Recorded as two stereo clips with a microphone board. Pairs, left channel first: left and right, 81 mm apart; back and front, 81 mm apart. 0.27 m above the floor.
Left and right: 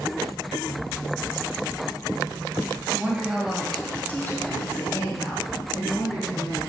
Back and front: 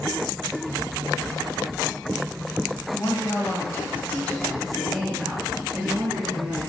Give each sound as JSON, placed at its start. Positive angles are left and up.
{"t": 2.9, "sound": "a woman speaking", "azimuth_deg": -155, "distance_m": 1.6}